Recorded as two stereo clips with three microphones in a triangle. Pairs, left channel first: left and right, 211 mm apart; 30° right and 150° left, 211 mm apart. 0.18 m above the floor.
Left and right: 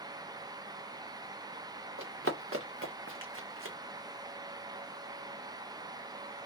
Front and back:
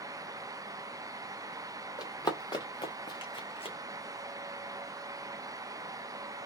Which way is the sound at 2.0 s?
100° right.